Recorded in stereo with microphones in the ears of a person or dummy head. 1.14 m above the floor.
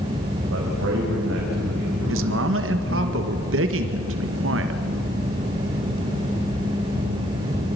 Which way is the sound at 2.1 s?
65° right (ahead or behind).